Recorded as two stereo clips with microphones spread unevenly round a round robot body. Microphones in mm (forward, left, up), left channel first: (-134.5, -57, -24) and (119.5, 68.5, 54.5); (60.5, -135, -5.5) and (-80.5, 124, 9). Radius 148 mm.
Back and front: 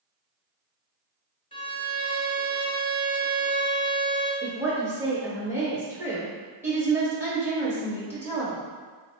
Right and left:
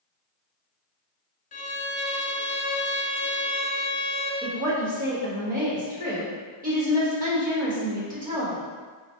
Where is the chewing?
No chewing in this recording.